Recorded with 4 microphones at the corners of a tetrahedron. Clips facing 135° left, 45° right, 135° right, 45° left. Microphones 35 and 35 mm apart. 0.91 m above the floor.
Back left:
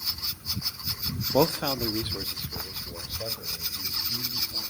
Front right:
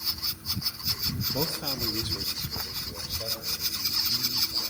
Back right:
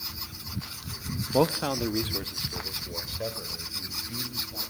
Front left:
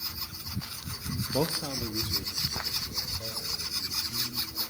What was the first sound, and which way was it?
A man speaking, 165° left.